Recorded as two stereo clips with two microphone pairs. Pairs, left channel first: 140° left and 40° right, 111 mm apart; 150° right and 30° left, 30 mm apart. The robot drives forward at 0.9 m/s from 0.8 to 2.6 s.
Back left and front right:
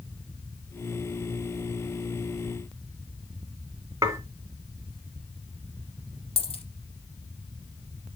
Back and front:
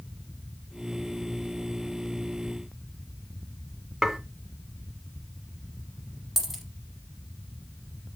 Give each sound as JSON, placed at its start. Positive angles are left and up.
{"t": 4.0, "sound": "dishes clattering", "azimuth_deg": -45, "distance_m": 0.9}
{"t": 6.4, "sound": "a dropped coin", "azimuth_deg": 115, "distance_m": 0.9}